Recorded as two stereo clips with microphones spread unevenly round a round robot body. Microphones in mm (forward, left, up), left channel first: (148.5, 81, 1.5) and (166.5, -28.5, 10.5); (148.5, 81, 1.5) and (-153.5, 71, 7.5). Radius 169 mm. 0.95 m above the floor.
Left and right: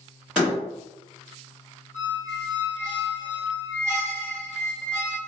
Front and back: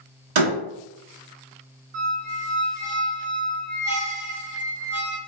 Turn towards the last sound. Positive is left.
turn(degrees=180)